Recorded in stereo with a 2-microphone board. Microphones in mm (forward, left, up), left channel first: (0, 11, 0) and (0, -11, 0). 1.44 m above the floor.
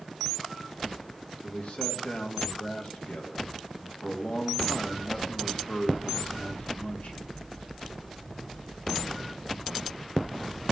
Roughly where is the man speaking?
Left.